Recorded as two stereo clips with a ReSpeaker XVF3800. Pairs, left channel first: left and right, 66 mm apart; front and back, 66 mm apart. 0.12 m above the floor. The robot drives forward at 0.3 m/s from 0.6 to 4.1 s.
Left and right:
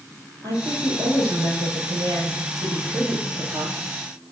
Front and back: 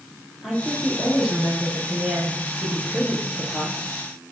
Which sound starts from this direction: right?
A woman speaking, at 0.4 s.